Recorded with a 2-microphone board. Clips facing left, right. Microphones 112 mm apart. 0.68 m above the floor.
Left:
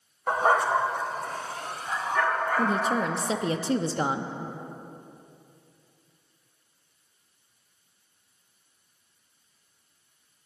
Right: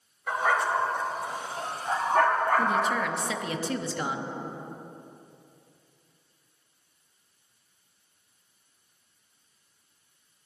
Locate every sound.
0.3 s a dog barking: 40° left (ahead or behind), 1.3 m; by 3.1 s 55° right (ahead or behind), 2.5 m
2.6 s a woman speaking: 30° left (ahead or behind), 0.6 m